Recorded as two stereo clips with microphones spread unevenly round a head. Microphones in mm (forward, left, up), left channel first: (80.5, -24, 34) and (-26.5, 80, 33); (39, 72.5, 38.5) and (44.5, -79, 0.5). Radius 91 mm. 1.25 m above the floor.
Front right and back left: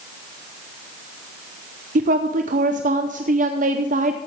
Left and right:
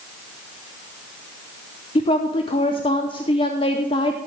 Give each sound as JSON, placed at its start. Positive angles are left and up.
{"t": 1.9, "sound": "a woman speaking", "azimuth_deg": 160, "distance_m": 0.6}